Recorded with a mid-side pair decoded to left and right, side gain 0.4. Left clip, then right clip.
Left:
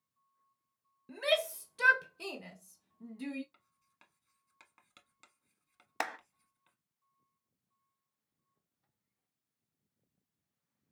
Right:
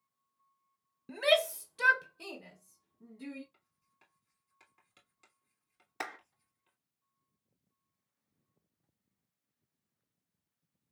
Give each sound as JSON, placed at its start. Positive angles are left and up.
{"t": 1.1, "sound": "a shout", "azimuth_deg": -40, "distance_m": 0.7}
{"t": 3.5, "sound": "writing", "azimuth_deg": 70, "distance_m": 1.1}
{"t": 6.0, "sound": "a clap", "azimuth_deg": 65, "distance_m": 0.9}